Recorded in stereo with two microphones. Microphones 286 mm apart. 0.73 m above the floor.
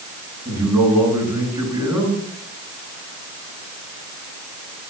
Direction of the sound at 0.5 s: 10° right (ahead or behind).